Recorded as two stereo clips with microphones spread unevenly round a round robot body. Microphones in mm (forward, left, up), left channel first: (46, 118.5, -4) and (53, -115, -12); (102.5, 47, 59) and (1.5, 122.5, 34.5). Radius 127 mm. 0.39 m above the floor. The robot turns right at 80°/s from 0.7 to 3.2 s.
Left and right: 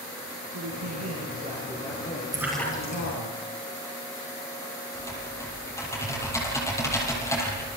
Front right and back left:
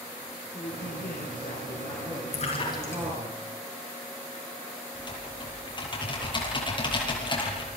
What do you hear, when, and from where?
0.5 s a man speaking: 90° right, 5.5 m; by 3.3 s 110° left, 5.5 m
2.3 s a splash: 15° right, 9 m; by 3.1 s 45° left, 9 m
5.0 s typing on a keyboard: 15° left, 9.5 m